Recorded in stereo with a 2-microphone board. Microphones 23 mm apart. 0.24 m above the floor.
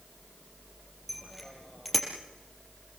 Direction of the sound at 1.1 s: Centre (ahead or behind).